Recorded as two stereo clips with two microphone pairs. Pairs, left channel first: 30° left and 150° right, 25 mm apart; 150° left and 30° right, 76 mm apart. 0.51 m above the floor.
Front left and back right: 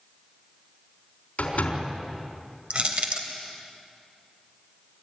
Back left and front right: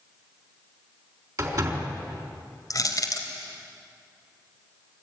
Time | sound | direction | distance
1.4 | a door slam | 10° left | 4 m
2.7 | crushing | straight behind | 2.5 m